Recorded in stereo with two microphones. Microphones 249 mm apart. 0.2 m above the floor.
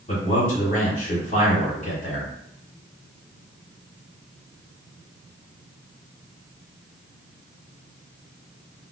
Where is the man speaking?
30° left (ahead or behind), 1.9 m.